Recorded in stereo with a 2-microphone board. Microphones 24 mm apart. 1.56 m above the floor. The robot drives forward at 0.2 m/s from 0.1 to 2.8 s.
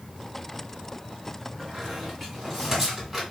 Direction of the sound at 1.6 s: 10° right (ahead or behind).